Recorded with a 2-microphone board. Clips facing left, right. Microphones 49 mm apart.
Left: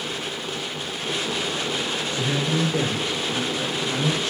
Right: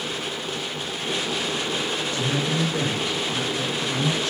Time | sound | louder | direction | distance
2.1 | a man speaking | left 2 dB | 35° left (ahead or behind) | 1.8 m